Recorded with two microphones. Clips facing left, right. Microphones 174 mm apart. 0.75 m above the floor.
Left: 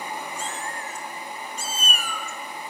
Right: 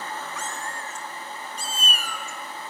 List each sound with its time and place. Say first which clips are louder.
0.4 s a cat meowing: left 1 dB; 30° left (ahead or behind), 3 m; by 2.7 s 60° left (ahead or behind), 3 m